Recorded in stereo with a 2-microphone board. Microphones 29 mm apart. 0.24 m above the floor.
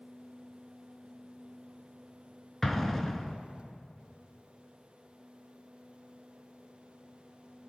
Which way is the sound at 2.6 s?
10° left (ahead or behind).